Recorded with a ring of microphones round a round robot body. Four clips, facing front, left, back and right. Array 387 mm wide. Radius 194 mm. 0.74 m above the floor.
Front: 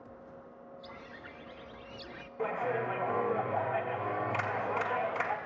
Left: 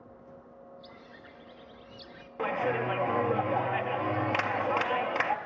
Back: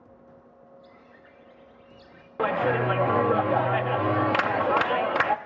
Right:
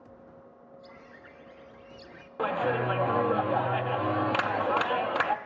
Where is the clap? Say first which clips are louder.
Right 2 dB, back 8 dB; 175° right, 0.8 m.